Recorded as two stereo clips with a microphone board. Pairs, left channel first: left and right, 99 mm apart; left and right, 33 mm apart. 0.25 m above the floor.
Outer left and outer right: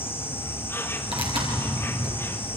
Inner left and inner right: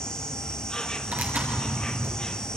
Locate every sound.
0.0 s an insect: 25° left (ahead or behind), 1.6 m
1.1 s tearing paper: 70° right (ahead or behind), 5 m